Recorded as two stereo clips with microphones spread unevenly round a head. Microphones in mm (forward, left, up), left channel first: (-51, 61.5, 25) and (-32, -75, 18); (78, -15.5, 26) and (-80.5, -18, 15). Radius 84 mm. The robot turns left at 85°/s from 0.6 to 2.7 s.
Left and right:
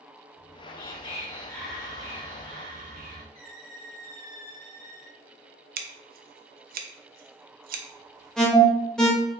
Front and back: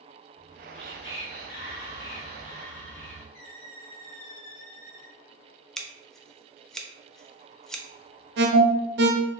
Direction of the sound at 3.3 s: Straight ahead.